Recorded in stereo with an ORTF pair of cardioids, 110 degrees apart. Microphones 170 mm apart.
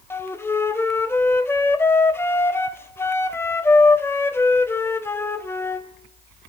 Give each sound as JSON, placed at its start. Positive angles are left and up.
{"t": 0.1, "sound": "a flute", "azimuth_deg": 15, "distance_m": 0.6}